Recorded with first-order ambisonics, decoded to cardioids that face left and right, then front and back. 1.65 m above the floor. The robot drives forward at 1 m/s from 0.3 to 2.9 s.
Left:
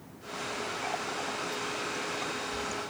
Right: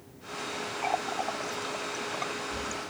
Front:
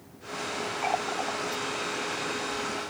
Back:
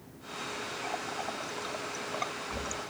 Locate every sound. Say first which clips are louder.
0.8 s a running tap: right 7 dB, front 8 dB; 35° right; by 2.9 s 165° right